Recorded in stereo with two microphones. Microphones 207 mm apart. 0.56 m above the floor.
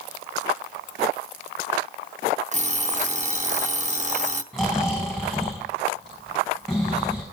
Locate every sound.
2.5 s an alarm clock: 35° right (ahead or behind), 0.7 m
4.5 s snoring: centre (ahead or behind), 6 m